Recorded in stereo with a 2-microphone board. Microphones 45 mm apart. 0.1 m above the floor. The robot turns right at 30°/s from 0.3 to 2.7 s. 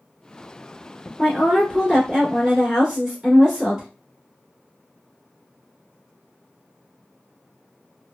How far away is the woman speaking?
About 1.6 m.